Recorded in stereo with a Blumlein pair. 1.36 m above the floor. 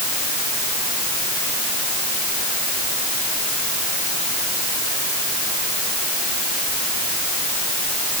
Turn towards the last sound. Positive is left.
No sound to turn to.